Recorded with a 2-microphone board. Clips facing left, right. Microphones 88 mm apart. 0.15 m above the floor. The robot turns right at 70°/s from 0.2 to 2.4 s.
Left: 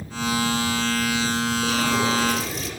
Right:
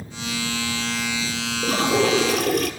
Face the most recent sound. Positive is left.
turn(degrees=-80)